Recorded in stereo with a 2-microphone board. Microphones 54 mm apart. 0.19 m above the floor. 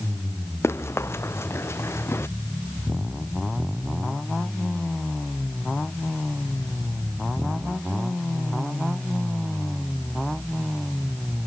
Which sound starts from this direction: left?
Running footsteps, at 0.6 s.